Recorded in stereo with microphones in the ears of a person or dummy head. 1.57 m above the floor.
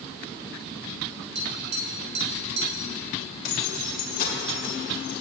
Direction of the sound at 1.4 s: 40° right (ahead or behind).